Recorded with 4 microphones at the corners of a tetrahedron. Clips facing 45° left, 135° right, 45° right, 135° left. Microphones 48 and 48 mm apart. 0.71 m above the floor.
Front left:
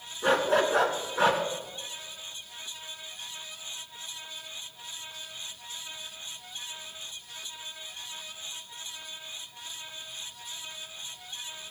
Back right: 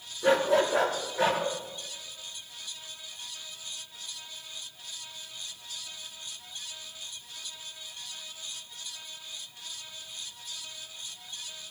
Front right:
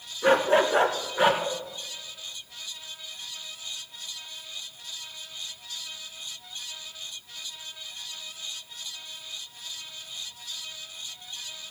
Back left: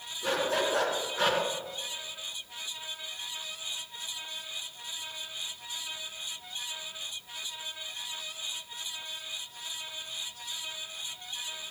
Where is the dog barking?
Straight ahead, 3 m; by 1.4 s 35° left, 3 m.